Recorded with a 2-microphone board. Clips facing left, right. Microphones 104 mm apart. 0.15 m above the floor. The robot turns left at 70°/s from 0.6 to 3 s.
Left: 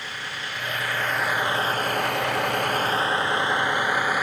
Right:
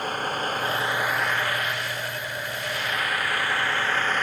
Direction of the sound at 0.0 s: 50° right (ahead or behind).